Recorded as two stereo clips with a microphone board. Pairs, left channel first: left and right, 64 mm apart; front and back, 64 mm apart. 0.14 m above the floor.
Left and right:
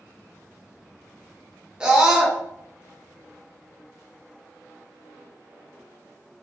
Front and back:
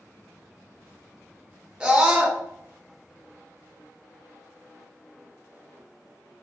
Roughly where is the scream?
Behind right.